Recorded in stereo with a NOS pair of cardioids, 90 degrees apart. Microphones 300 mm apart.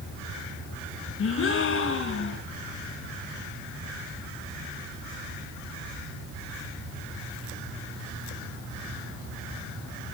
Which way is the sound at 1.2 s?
45° left.